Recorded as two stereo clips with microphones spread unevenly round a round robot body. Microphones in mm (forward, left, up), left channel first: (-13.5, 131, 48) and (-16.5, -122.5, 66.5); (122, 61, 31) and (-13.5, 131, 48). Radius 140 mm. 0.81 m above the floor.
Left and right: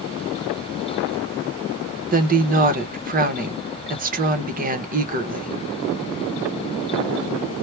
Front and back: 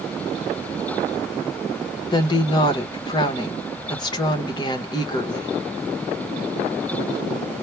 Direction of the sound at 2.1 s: 50° right.